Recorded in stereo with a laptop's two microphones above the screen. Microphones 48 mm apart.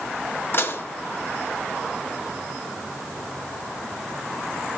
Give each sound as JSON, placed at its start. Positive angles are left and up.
{"t": 0.5, "sound": "dishes clattering", "side_deg": 50, "distance_m": 1.6}